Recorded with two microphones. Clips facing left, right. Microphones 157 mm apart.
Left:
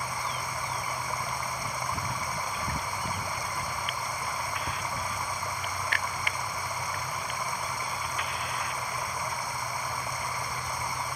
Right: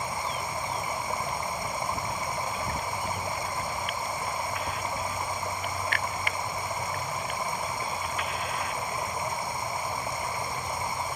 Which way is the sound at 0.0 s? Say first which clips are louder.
Right 2 dB; 25° right (ahead or behind).